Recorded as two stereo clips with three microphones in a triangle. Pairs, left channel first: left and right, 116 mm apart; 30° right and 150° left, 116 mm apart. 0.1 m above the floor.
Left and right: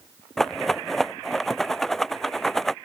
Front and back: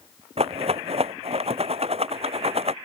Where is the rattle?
175° left.